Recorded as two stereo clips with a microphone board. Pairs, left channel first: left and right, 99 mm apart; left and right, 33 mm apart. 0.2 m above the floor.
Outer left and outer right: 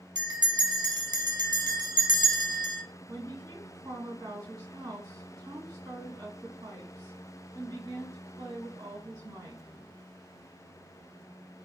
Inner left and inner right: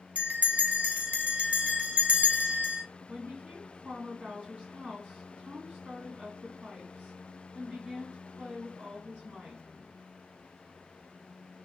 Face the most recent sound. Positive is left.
turn(degrees=-40)  # may be behind; listen again after turning